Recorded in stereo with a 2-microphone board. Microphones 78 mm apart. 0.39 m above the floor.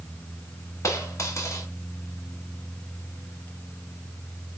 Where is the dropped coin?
40° left (ahead or behind), 1.3 m.